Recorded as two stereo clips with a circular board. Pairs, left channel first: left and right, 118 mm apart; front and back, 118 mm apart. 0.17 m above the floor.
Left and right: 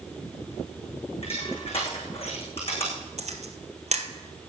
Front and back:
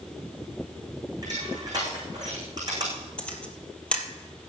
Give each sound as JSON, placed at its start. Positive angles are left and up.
{"t": 1.2, "sound": "crushing", "azimuth_deg": 125, "distance_m": 8.5}
{"t": 3.2, "sound": "a camera shutter", "azimuth_deg": -80, "distance_m": 1.9}